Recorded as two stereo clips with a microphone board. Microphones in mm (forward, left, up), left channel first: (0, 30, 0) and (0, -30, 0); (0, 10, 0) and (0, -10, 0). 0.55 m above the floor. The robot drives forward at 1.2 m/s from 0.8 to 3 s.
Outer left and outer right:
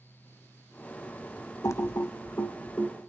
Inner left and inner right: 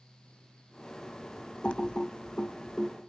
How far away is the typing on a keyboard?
About 0.7 m.